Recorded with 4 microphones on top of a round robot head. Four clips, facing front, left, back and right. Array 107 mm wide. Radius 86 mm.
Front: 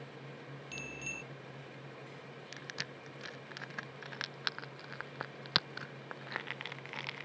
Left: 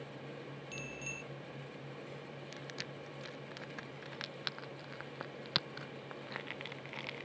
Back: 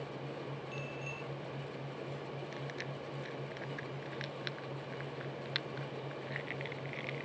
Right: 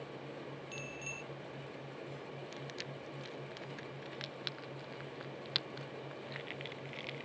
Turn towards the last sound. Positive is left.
turn(degrees=15)